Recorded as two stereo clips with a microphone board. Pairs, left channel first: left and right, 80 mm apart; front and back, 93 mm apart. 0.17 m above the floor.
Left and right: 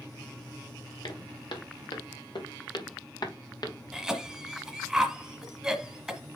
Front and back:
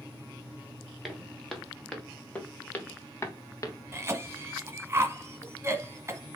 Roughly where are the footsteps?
Left.